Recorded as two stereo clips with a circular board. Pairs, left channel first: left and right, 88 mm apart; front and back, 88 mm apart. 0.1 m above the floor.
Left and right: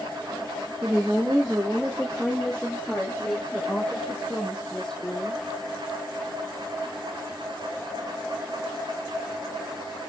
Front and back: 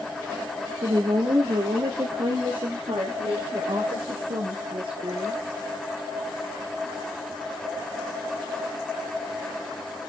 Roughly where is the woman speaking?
Behind.